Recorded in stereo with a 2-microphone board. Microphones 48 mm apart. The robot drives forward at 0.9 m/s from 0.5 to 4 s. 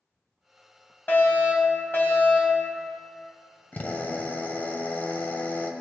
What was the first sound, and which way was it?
A fire alarm, 45° left (ahead or behind).